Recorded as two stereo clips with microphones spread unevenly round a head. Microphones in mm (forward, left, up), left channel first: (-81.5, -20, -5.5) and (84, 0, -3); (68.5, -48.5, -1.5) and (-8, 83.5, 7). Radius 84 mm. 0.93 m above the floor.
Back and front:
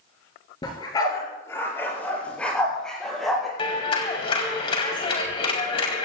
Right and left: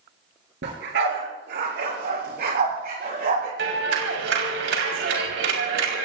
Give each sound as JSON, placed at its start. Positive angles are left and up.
{"t": 0.6, "sound": "a dog barking", "azimuth_deg": 120, "distance_m": 4.5}
{"t": 3.6, "sound": "a clap", "azimuth_deg": 125, "distance_m": 4.5}